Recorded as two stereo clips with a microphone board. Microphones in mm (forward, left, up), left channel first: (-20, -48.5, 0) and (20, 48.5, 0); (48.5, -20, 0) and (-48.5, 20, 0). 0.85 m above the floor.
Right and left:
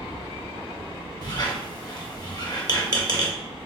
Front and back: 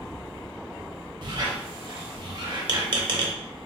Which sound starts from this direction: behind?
A squeak, at 1.2 s.